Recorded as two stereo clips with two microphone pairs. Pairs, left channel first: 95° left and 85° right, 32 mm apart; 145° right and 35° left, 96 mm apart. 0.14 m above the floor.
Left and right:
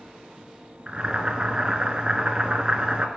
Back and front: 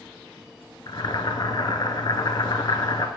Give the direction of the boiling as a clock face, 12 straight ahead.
4 o'clock.